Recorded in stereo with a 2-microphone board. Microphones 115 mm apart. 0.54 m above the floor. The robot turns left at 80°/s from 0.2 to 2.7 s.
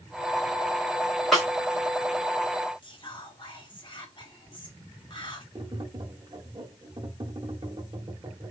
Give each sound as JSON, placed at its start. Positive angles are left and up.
{"t": 1.3, "sound": "a snare drum", "side_deg": 0, "distance_m": 1.4}
{"t": 2.8, "sound": "whispering", "side_deg": 45, "distance_m": 1.1}
{"t": 5.5, "sound": "tapping", "side_deg": -40, "distance_m": 0.9}